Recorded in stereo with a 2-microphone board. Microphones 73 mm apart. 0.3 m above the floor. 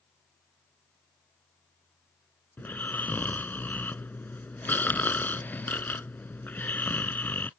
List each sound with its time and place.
2.6 s snoring: 25° left (ahead or behind)